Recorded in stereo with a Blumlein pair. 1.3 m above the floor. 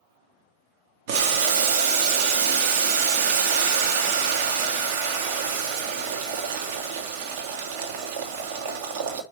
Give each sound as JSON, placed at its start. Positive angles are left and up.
{"t": 1.1, "sound": "boiling", "azimuth_deg": -50, "distance_m": 1.1}